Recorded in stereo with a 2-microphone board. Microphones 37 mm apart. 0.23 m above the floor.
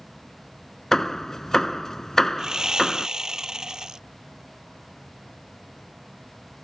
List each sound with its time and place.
0.9 s hammering: 15° left (ahead or behind)
2.4 s sawing: 20° right (ahead or behind)